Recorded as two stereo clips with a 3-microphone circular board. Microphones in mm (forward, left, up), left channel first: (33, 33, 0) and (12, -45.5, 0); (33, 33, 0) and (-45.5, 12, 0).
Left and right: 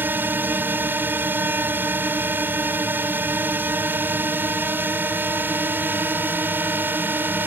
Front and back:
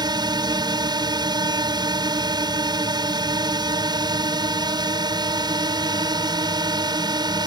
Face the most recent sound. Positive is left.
turn(degrees=-165)